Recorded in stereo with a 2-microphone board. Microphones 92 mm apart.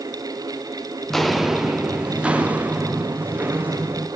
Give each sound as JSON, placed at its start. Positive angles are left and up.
{"t": 1.1, "sound": "footsteps", "side_deg": 0, "distance_m": 1.0}